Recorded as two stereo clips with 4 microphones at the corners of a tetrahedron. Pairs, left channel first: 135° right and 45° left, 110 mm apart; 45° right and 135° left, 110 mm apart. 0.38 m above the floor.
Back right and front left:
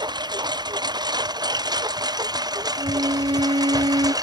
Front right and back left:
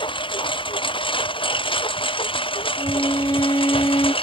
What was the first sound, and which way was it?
A lawn mower, 5° right.